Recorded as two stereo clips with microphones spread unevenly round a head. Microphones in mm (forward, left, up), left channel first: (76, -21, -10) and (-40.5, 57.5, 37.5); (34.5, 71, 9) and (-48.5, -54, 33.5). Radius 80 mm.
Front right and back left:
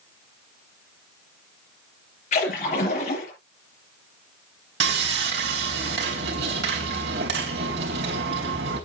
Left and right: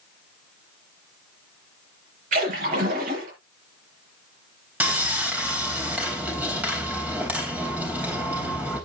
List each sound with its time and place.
2.3 s a splash: 85° right, 6 m
4.8 s sawing: 155° left, 3.5 m